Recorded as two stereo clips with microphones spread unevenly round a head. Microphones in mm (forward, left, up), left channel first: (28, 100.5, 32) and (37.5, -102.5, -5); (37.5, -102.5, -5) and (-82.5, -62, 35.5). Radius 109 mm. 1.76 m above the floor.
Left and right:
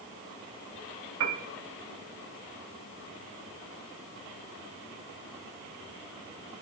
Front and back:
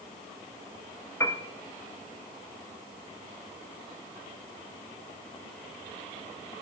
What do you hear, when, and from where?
1.2 s a piano: 95° right, 1.5 m